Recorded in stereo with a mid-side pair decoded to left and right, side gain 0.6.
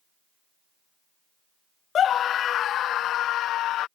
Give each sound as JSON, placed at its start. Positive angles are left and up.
{"t": 1.9, "sound": "a scream", "azimuth_deg": 45}